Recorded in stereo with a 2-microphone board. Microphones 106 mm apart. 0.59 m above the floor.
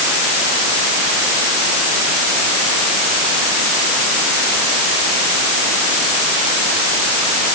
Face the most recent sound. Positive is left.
No sound to turn to.